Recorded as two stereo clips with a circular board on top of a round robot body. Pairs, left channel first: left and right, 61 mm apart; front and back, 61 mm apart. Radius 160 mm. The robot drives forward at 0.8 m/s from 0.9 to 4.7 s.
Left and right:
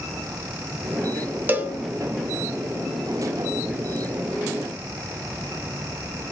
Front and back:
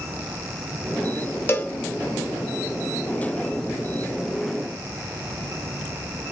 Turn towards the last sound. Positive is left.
turn(degrees=-160)